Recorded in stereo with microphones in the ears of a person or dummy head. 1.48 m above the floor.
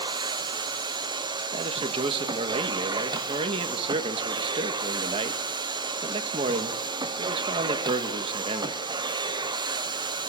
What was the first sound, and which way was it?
A machine running, 25° right (ahead or behind).